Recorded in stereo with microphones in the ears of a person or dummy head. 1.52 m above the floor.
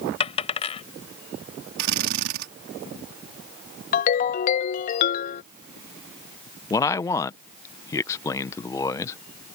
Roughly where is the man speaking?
Centre.